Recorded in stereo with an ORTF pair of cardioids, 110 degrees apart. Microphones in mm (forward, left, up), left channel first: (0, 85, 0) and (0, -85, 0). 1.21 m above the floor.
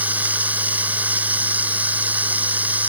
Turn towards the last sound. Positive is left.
turn(degrees=-10)